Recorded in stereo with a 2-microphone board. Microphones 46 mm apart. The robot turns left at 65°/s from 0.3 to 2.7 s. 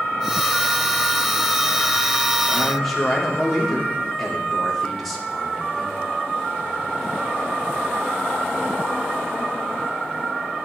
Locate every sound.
2.5 s a man speaking: 20° left (ahead or behind), 1.8 m; by 6.0 s 5° left (ahead or behind), 1.8 m